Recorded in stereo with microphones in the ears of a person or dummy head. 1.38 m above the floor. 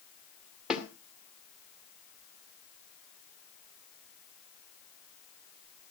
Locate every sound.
0.7 s a snare drum: 5° right (ahead or behind), 2.5 m